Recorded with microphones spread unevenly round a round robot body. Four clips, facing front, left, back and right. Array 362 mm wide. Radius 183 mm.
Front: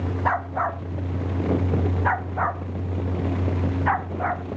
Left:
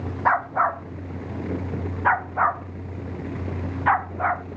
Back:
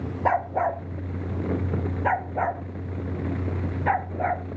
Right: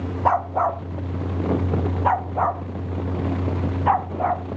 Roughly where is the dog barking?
Behind right.